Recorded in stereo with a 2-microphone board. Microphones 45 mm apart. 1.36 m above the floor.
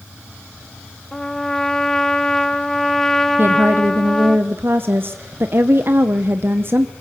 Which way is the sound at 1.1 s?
10° left (ahead or behind).